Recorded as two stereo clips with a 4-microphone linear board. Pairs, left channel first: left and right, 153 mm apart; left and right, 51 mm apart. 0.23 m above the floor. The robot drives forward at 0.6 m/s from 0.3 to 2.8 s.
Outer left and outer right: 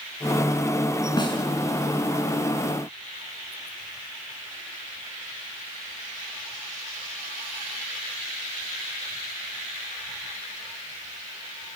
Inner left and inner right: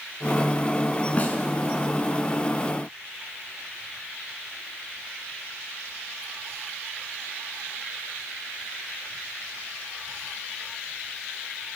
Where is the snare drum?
30° left (ahead or behind), 3 m.